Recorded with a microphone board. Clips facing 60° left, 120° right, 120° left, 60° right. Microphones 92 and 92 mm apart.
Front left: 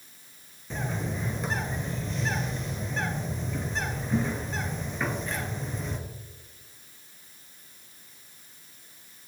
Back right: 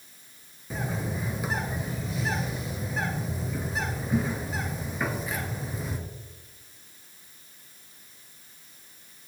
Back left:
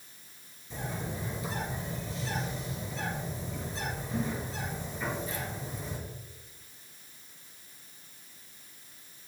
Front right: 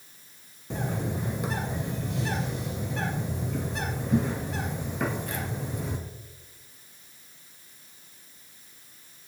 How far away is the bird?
About 1.6 m.